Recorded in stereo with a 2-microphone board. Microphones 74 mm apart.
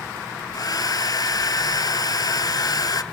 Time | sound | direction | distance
0.5 | a hair dryer | 60° left (ahead or behind) | 0.9 m